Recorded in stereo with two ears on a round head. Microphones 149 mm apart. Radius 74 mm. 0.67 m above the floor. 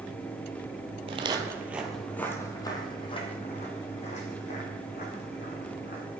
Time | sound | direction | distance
1.1 | footsteps | 35° right (ahead or behind) | 0.9 m